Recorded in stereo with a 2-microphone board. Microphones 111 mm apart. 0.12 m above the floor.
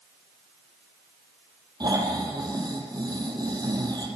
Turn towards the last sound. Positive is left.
turn(degrees=-40)  # may be behind; listen again after turning